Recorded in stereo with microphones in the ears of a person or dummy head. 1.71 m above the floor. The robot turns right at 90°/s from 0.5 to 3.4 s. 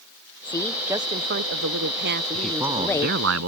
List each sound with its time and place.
0.5 s a woman speaking: 155° left; by 3.2 s 35° left
2.3 s a man speaking: 165° left; by 3.5 s 100° right